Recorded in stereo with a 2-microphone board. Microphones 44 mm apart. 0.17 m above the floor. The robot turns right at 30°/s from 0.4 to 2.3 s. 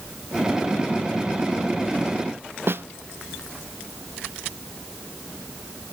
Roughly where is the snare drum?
Right.